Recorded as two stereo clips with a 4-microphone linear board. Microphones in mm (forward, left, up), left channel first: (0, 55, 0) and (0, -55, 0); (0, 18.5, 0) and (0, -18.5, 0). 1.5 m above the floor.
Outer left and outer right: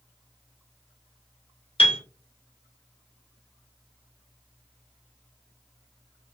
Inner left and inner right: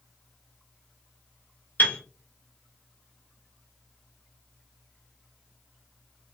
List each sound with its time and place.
1.8 s a piano: 60° left (ahead or behind), 0.5 m